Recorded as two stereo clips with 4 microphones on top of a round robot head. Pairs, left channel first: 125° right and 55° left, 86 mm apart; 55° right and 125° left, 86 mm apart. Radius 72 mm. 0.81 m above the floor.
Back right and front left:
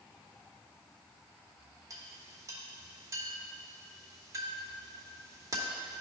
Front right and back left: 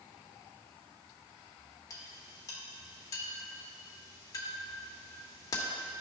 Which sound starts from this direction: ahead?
A clink, at 1.9 s.